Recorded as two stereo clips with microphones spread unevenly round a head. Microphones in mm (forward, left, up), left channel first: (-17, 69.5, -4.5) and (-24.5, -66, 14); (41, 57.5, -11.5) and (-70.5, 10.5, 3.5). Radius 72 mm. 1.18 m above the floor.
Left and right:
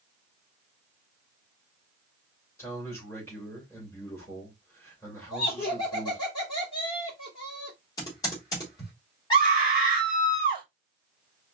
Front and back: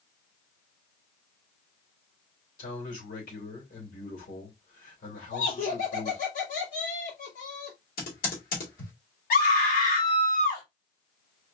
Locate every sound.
2.6 s a man speaking: 15° left, 2.5 m
5.3 s laughter: 25° left, 3 m
8.0 s typing on a keyboard: 20° left, 2.5 m
9.3 s a scream: 25° left, 3 m